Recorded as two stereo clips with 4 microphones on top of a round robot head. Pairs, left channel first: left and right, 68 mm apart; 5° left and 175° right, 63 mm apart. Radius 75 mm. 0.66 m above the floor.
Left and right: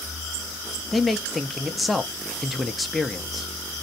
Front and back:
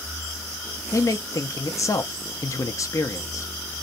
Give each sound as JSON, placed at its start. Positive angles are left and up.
{"t": 0.9, "sound": "a man speaking", "azimuth_deg": 0, "distance_m": 0.7}